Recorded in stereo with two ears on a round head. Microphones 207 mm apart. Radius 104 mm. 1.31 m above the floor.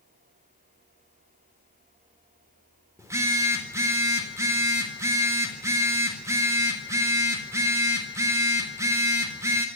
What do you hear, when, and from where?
3.0 s a phone buzzing: 15° right (ahead or behind), 3.5 m